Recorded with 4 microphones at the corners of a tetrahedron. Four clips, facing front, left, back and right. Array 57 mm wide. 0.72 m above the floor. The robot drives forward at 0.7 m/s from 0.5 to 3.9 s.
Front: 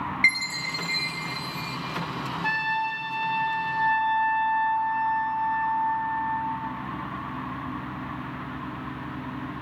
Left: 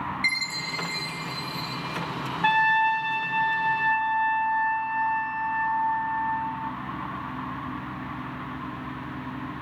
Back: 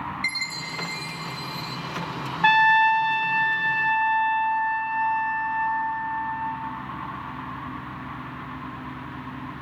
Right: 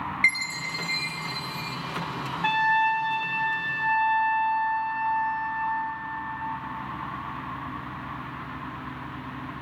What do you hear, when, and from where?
0.2 s a chime: 40° right, 3 m; by 1.8 s 50° right, 2.5 m
2.4 s a trumpet: 170° left, 0.7 m; by 6.7 s 175° left, 1.7 m